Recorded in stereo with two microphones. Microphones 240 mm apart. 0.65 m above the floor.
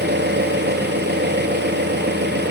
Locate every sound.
0.0 s an engine running: 45° right (ahead or behind), 4.5 m